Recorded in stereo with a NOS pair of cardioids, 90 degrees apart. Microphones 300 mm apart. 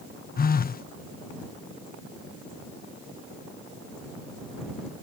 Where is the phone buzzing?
30° left.